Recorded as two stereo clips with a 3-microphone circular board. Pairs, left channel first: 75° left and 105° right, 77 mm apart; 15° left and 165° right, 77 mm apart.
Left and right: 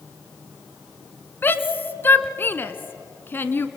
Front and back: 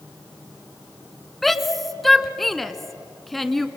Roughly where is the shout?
Left.